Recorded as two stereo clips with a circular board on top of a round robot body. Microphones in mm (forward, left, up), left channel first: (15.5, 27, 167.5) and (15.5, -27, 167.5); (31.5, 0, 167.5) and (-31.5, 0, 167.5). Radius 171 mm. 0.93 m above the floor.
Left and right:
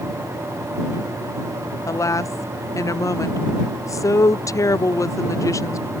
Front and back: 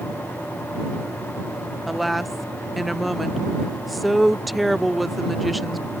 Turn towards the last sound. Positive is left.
turn(degrees=90)